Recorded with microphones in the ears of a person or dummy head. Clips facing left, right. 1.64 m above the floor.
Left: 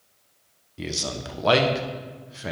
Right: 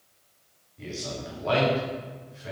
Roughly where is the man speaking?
Left.